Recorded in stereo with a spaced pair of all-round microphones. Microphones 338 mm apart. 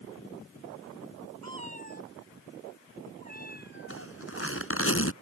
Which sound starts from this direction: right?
A cat meowing, at 1.4 s.